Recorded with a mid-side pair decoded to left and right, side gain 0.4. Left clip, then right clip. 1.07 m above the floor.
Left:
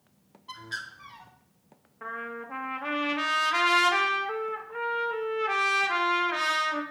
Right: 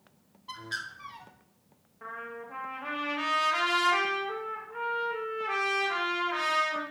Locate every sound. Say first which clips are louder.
0.5 s a bird: even; 20° right, 0.9 m
2.0 s a trumpet: left 4 dB; 50° left, 0.7 m